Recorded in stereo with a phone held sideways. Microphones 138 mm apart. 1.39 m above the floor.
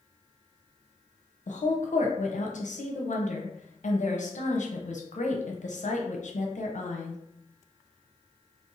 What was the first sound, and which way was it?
A woman speaking, 65° left (ahead or behind).